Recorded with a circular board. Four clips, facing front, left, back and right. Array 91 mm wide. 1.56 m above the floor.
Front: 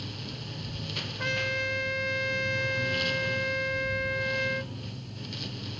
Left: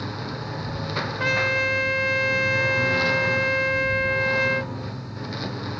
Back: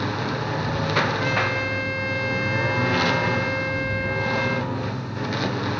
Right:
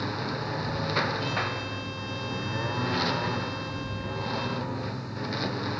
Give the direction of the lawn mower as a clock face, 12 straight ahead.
6 o'clock.